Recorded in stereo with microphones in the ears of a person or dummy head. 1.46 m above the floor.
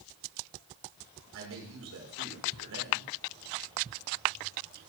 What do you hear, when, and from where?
1.3 s a man speaking: 75° right (ahead or behind), 5.5 m